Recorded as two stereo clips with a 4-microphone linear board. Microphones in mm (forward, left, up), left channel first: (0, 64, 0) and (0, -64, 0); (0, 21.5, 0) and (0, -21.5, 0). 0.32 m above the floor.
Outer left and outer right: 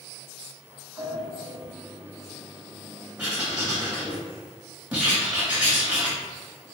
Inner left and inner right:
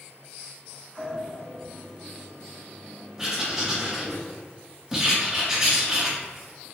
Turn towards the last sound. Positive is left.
turn(degrees=-10)  # may be behind; listen again after turning